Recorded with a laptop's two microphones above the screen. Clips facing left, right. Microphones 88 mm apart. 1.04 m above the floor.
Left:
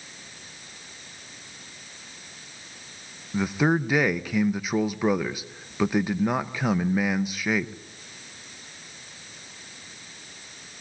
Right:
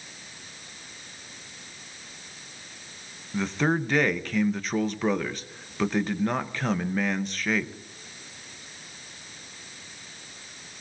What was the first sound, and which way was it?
A man speaking, 10° left (ahead or behind).